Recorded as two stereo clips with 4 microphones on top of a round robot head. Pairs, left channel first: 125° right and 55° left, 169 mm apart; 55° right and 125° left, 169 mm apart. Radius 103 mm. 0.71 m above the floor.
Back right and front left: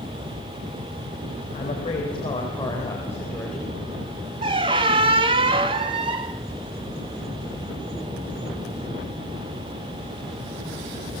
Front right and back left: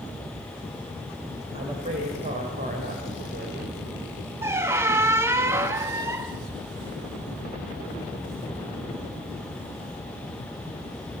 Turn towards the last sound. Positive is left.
turn(degrees=65)